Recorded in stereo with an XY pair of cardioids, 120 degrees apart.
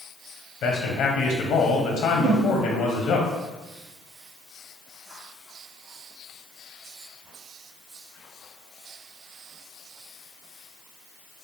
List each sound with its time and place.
0.6 s a man speaking: 60° left, 1.0 m
2.2 s a whoosh: 35° right, 0.6 m